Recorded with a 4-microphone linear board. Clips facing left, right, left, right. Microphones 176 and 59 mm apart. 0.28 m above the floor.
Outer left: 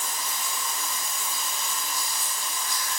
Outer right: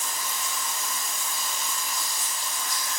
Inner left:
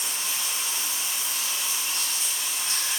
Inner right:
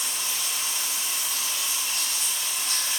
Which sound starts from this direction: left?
Running water, at 0.0 s.